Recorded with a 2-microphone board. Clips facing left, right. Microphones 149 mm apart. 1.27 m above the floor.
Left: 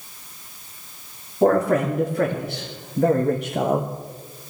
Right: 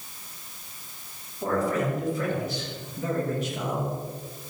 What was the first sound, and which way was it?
A man speaking, 65° left (ahead or behind).